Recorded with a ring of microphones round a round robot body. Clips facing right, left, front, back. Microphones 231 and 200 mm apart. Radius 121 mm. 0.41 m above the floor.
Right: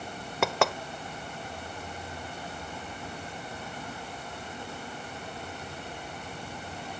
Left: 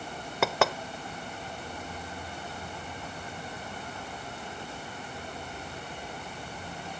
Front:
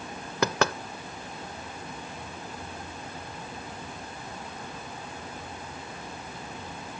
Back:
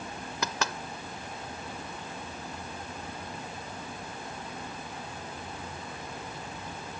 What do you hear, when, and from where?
0.4 s knocking: straight ahead